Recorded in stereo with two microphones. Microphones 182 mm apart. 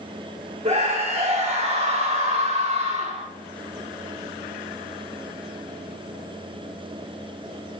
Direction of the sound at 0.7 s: 35° right (ahead or behind).